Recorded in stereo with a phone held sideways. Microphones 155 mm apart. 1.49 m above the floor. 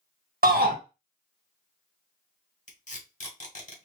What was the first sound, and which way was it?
A shout, 75° right (ahead or behind).